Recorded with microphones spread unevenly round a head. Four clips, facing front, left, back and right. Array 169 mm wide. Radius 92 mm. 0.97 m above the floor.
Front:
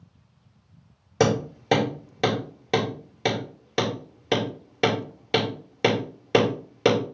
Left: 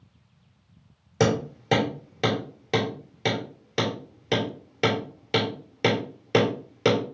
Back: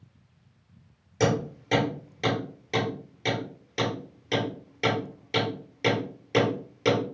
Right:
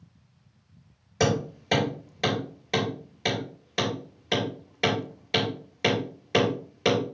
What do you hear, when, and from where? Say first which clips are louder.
1.2 s hammering: left 2 dB, front 3 dB; 20° left, 3 m